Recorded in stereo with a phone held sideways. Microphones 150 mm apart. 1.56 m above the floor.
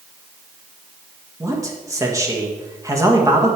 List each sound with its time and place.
1.4 s a man speaking: 20° right (ahead or behind), 1.5 m